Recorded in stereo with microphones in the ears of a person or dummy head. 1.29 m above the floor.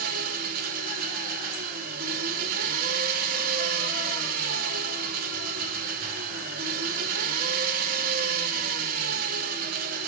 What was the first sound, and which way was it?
An engine running, 55° right (ahead or behind).